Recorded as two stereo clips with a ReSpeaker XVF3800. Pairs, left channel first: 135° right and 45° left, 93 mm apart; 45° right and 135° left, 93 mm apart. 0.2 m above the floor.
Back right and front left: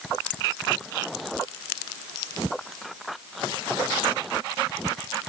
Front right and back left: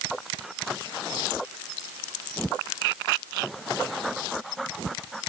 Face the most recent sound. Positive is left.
No sound to turn to.